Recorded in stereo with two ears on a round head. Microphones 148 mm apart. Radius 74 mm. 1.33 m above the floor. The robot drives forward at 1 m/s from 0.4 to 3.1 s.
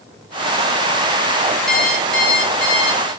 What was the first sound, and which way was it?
An alarm clock, 5° left (ahead or behind).